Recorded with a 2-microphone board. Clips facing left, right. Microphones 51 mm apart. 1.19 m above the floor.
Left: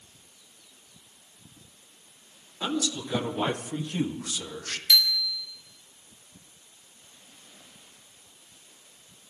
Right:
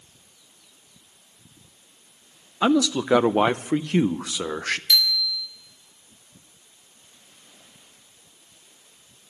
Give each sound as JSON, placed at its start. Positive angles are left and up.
{"t": 2.6, "sound": "a man speaking", "side_deg": -70, "distance_m": 0.6}
{"t": 4.9, "sound": "a bicycle bell", "side_deg": 0, "distance_m": 3.0}